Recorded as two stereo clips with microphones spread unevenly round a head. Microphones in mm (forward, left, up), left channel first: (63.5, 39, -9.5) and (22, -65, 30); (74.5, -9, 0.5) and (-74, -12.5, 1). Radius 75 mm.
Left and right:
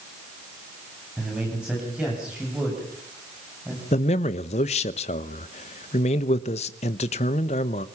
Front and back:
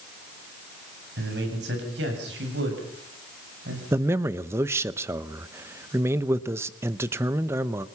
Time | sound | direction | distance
1.2 | a man speaking | 165° left | 9.5 m
3.9 | a man speaking | 105° left | 0.8 m